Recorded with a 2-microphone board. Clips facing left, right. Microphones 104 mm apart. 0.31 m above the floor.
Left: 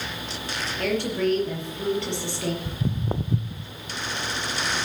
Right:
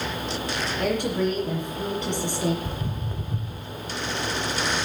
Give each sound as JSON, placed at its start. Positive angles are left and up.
{"t": 0.8, "sound": "a woman speaking", "side_deg": -15, "distance_m": 5.5}
{"t": 2.6, "sound": "footsteps", "side_deg": 35, "distance_m": 0.6}